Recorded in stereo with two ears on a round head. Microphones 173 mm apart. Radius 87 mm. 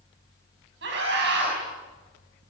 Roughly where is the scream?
Right.